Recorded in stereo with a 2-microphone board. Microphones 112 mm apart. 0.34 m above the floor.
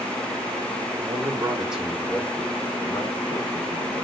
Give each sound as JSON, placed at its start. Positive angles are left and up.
{"t": 1.0, "sound": "a man speaking", "side_deg": -35, "distance_m": 1.2}